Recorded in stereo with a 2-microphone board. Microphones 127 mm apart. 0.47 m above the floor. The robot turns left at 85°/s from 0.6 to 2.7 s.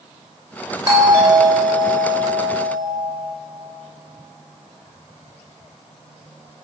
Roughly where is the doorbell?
Behind right.